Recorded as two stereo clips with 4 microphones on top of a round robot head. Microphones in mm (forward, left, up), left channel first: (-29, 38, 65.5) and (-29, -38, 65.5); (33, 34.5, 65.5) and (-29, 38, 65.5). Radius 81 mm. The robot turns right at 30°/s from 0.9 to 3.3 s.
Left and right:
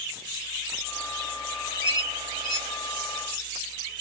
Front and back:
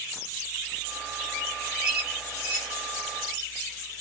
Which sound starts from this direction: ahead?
A squeak, at 1.8 s.